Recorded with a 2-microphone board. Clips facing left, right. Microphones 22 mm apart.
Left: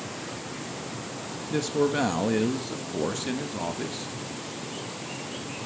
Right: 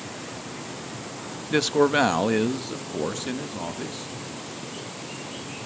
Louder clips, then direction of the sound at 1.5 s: Right 5 dB; 45° right (ahead or behind).